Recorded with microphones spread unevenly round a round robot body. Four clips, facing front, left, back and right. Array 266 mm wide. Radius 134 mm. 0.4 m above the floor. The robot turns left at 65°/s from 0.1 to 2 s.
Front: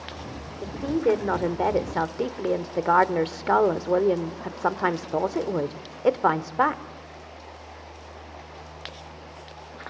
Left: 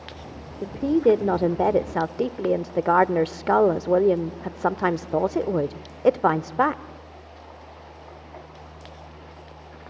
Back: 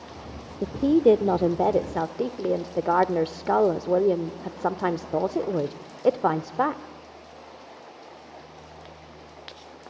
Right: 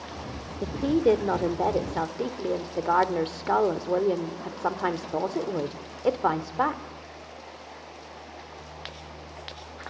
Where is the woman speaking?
Straight behind, 0.8 m; by 6.8 s 90° left, 0.8 m.